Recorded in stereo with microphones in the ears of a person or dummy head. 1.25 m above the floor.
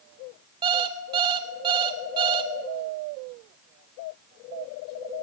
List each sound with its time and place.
0.6 s an alarm clock: 25° right (ahead or behind), 0.6 m